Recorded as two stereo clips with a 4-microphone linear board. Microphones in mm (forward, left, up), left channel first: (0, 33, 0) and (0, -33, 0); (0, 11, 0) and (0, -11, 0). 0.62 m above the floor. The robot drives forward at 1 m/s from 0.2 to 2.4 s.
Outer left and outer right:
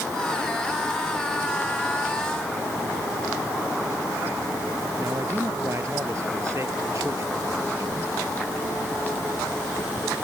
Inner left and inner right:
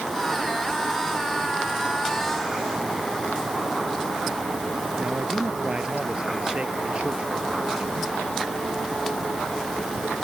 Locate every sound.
5.0 s a man speaking: 50° right (ahead or behind)